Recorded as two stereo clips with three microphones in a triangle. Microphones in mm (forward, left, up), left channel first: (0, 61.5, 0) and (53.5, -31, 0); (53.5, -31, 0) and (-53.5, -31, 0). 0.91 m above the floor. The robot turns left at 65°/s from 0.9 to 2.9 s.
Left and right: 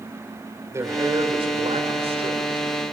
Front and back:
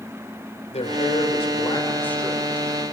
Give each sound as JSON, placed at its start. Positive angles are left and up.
{"t": 0.7, "sound": "a man speaking", "azimuth_deg": 5, "distance_m": 3.0}